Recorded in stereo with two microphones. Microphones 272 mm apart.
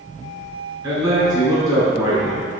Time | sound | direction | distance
0.8 | a man speaking | 15° right (ahead or behind) | 1.9 m